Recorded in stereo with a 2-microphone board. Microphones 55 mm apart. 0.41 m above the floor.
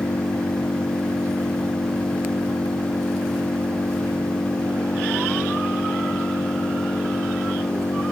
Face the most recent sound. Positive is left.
turn(degrees=75)  # may be behind; listen again after turning